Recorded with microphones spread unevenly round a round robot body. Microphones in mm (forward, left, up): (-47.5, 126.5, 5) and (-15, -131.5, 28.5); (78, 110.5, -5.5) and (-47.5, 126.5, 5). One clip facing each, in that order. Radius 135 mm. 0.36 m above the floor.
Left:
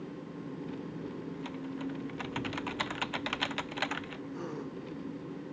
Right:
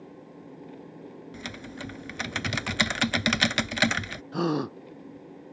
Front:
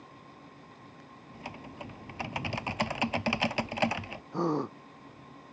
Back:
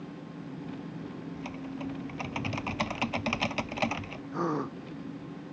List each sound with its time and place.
0.0 s an engine running: 170° left
1.3 s typing on a keyboard: 85° right
4.3 s a gasp: 90° right